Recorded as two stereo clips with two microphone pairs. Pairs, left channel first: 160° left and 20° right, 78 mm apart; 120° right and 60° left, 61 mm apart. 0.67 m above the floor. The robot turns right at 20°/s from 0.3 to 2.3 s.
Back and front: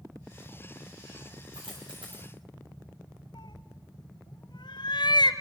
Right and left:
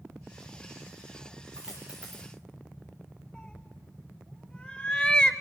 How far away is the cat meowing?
About 1.5 m.